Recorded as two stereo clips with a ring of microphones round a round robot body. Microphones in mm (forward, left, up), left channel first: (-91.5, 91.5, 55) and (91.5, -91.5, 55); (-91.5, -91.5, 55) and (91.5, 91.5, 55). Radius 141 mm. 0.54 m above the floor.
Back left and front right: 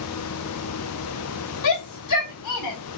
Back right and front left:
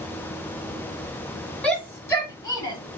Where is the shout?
140° left, 4.5 m; by 2.8 s 150° left, 5 m.